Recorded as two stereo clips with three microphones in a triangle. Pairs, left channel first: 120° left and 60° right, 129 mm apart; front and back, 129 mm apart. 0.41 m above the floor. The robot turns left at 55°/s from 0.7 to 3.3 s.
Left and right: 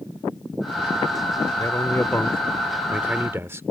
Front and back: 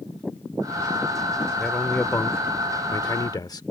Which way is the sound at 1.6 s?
85° left.